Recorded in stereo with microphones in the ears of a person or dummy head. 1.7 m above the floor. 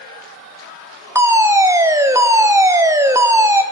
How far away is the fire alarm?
About 1.2 m.